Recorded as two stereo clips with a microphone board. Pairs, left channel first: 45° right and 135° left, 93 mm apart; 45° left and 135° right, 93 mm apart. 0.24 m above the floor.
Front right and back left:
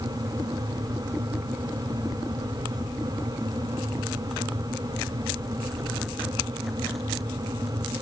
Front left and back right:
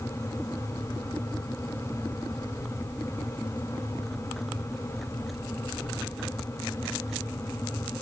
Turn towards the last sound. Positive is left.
No sound to turn to.